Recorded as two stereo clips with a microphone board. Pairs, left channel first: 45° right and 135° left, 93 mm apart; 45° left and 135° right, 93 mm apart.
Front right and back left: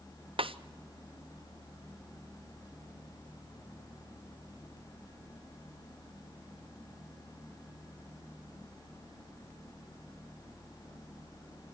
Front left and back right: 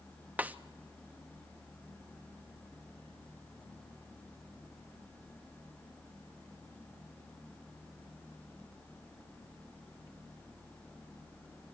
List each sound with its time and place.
0.4 s a snare drum: 150° left, 0.7 m